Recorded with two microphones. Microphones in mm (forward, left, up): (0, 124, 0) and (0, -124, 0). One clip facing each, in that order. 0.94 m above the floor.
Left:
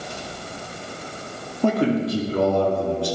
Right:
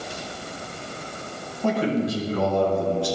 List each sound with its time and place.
1.6 s a man speaking: 65° left (ahead or behind), 2.5 m